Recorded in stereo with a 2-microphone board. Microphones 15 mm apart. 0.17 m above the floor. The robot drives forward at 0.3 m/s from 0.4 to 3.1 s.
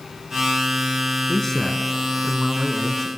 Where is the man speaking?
15° left (ahead or behind), 1.5 m.